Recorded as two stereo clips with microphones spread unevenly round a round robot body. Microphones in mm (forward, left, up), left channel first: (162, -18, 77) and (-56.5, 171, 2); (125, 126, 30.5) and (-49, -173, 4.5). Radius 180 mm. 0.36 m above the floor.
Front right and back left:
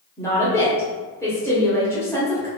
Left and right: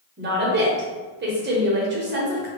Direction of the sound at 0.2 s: 140° right.